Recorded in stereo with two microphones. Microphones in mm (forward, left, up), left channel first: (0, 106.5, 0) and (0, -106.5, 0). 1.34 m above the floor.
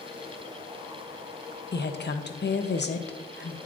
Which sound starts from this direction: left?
A woman speaking, at 1.7 s.